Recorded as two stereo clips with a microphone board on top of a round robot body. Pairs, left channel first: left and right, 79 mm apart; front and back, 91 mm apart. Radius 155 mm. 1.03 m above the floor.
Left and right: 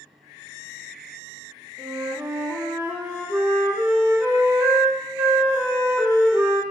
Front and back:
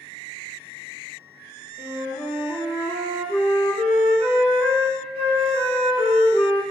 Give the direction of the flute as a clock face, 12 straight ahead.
5 o'clock.